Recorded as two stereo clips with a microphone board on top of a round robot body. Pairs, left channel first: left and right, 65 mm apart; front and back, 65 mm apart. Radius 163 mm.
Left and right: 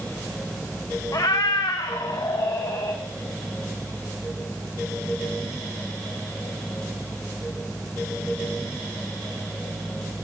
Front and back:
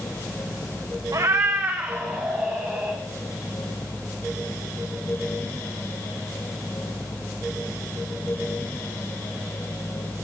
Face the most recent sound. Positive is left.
turn(degrees=95)